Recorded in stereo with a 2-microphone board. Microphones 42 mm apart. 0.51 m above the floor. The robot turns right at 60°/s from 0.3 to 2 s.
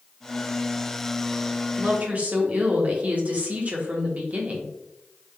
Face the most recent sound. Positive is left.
turn(degrees=-40)  # may be behind; listen again after turning